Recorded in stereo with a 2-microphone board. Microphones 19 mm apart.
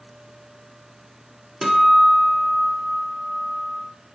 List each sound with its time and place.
1.6 s a guitar: 25° right (ahead or behind), 1.3 m